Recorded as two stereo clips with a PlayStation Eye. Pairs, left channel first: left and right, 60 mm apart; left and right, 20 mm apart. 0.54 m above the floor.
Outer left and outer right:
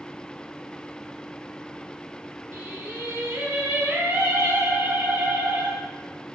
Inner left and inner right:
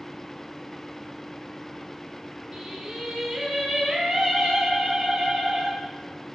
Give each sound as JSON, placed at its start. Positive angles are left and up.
{"t": 2.5, "sound": "singing", "side_deg": -30, "distance_m": 1.0}